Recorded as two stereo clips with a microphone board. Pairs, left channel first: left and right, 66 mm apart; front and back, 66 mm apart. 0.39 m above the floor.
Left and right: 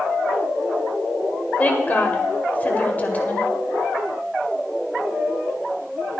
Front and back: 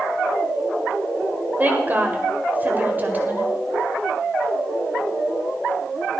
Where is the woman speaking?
140° left, 1.8 m.